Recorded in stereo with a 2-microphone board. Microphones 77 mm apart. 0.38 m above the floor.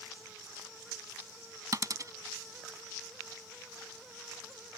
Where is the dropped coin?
50° right (ahead or behind).